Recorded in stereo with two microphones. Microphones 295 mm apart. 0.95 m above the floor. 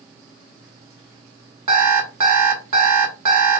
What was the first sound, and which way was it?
An alarm clock, 75° right (ahead or behind).